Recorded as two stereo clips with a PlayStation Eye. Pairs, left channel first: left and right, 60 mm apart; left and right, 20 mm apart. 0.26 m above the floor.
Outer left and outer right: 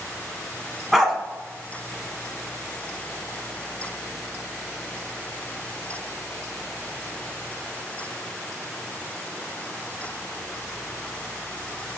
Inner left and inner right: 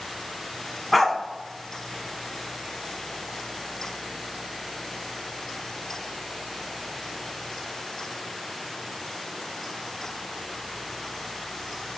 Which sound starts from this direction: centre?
A dog barking, at 0.9 s.